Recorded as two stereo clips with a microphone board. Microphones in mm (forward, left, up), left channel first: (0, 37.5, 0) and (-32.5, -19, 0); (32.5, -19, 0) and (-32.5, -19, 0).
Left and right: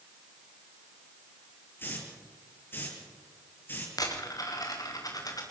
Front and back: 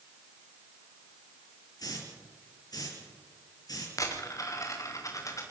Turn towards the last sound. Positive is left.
turn(degrees=35)